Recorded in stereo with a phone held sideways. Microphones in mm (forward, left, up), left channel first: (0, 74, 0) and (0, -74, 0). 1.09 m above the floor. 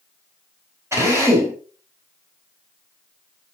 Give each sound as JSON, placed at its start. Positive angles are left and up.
{"t": 0.9, "sound": "a drill", "side_deg": -20, "distance_m": 4.0}